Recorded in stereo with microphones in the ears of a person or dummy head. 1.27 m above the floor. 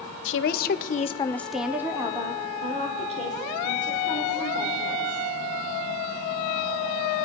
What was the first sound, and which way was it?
A woman speaking, 55° left (ahead or behind).